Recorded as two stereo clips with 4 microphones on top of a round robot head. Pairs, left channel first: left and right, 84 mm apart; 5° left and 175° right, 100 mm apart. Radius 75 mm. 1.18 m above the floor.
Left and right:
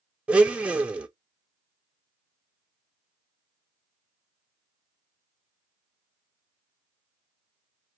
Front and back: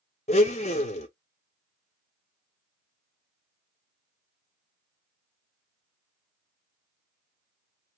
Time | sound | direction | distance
0.3 | a blender | 15° right | 0.6 m